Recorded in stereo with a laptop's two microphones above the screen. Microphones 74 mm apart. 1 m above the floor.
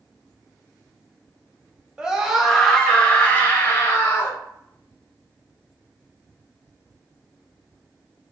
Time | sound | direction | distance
2.0 | a scream | 15° right (ahead or behind) | 1.3 m